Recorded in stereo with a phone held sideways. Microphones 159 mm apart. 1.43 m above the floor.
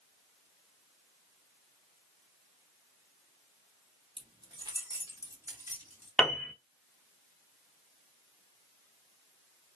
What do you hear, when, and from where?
4.2 s keys jangling: 30° right (ahead or behind), 0.7 m; by 6.1 s 15° right (ahead or behind), 1.6 m
6.2 s a piano: 5° left (ahead or behind), 0.6 m